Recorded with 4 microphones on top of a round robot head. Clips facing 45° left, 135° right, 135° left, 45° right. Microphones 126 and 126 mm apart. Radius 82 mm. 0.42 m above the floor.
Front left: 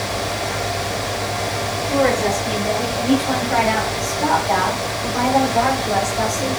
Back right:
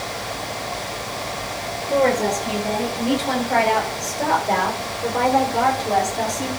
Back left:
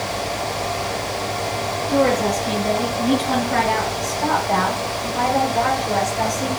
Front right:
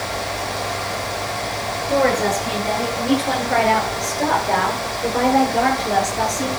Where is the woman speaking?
75° right, 8 m; by 6.5 s 55° right, 6.5 m.